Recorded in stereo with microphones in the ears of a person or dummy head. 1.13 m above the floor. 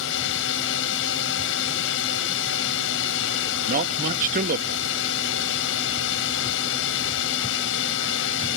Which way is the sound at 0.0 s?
70° left (ahead or behind).